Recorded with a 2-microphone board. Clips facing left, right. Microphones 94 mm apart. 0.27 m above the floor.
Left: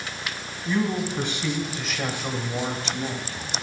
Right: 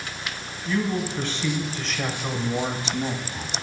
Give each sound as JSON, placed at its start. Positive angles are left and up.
{"t": 0.7, "sound": "a man speaking", "side_deg": 25, "distance_m": 1.8}